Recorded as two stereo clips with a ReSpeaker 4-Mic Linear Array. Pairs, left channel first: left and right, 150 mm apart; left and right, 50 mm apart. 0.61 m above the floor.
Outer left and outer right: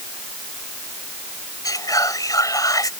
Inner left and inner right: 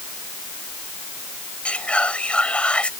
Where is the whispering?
25° left (ahead or behind).